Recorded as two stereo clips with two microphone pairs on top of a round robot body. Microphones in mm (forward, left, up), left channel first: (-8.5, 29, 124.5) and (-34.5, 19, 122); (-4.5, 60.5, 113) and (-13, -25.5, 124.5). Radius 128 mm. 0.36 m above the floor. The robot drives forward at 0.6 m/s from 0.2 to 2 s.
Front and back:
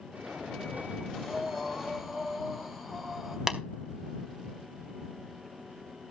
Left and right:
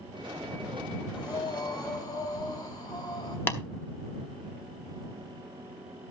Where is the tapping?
140° left, 2.5 m.